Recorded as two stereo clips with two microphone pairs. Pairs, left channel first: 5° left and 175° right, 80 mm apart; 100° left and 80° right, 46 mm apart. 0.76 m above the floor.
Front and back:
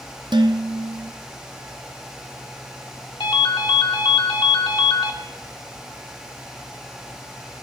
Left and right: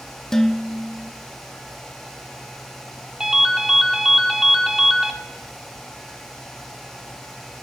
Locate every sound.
0.3 s dishes clattering: 175° left, 0.6 m
3.2 s a ringtone: 5° right, 1.3 m